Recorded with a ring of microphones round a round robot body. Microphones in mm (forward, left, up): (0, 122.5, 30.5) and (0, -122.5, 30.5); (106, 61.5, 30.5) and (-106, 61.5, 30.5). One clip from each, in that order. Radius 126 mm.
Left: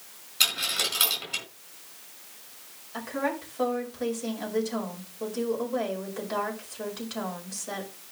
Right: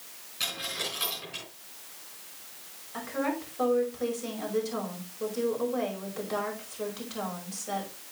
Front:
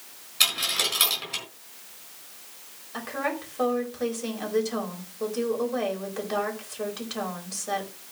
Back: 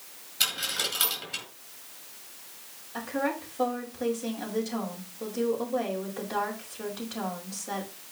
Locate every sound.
0.4 s a dropped coin: 55° left, 4 m
2.9 s a woman speaking: 10° left, 5 m